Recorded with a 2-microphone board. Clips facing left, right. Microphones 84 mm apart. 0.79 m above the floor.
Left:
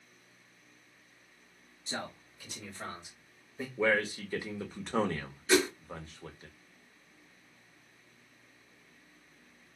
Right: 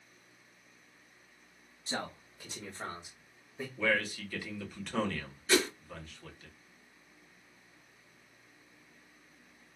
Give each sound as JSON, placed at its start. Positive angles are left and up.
{"t": 1.9, "sound": "a man speaking", "side_deg": -45, "distance_m": 1.3}
{"t": 3.8, "sound": "a man speaking", "side_deg": 30, "distance_m": 0.7}
{"t": 5.5, "sound": "a whoosh", "side_deg": 10, "distance_m": 0.7}